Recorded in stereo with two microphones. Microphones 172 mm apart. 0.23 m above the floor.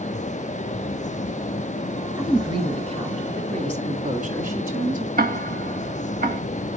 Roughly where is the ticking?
Right.